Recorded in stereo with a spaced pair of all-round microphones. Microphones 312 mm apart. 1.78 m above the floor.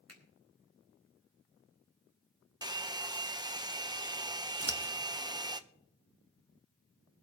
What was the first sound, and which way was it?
A finger snap, 50° right (ahead or behind).